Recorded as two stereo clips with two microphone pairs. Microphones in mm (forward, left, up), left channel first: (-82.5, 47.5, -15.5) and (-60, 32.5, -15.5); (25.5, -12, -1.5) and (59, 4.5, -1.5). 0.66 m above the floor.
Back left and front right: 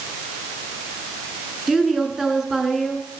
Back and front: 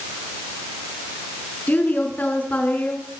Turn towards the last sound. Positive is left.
turn(degrees=-110)